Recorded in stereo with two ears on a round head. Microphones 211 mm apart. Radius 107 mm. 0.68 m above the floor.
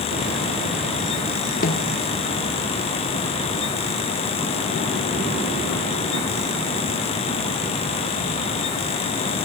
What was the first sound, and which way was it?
A snare drum, 35° left (ahead or behind).